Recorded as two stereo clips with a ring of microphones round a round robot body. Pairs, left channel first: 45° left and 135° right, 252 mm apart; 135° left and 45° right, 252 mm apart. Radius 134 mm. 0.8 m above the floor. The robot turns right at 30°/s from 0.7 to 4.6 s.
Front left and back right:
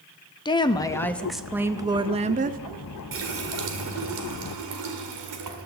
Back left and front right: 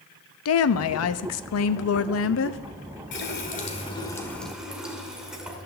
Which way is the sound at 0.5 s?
115° left.